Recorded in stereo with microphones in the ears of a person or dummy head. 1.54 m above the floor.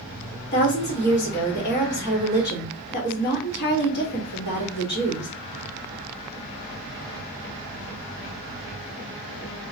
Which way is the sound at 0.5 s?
55° left (ahead or behind).